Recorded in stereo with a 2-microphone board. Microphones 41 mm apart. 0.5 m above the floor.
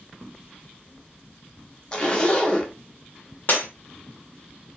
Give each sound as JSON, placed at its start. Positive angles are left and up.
{"t": 1.9, "sound": "a zipper", "side_deg": 25, "distance_m": 0.8}
{"t": 3.5, "sound": "breaking glass", "side_deg": 50, "distance_m": 1.0}